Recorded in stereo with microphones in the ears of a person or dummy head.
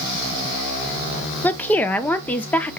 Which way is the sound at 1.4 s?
5° left (ahead or behind).